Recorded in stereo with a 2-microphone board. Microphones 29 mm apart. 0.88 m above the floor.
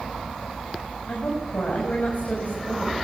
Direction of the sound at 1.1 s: 65° left (ahead or behind).